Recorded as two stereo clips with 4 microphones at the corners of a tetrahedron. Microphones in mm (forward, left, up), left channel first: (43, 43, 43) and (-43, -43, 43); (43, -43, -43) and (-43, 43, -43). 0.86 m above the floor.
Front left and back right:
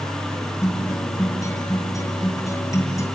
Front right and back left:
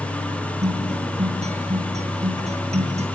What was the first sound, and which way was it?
A guitar, 110° left.